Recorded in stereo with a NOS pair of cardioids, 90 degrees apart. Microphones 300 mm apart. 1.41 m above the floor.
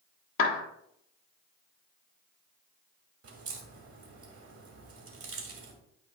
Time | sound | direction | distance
0.4 | a clap | 45° left | 1.6 m
3.2 | a crack | 50° right | 2.5 m